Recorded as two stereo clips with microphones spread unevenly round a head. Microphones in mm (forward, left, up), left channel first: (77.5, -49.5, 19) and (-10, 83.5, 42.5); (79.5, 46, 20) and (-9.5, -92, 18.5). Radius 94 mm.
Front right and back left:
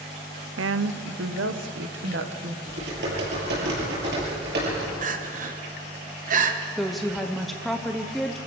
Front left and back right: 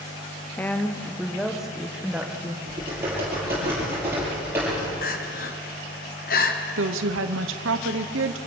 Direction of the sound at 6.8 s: 145° right.